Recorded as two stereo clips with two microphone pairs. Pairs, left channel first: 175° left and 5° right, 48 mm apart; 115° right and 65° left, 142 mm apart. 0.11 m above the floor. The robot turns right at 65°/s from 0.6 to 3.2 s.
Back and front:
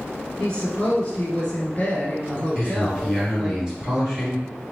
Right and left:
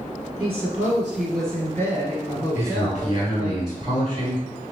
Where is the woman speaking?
115° left, 1.3 m; by 3.5 s 75° right, 1.3 m.